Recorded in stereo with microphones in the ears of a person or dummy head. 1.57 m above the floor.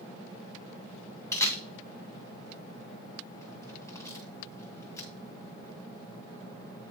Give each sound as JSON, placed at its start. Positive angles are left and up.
{"t": 1.3, "sound": "a camera shutter", "side_deg": 20, "distance_m": 1.6}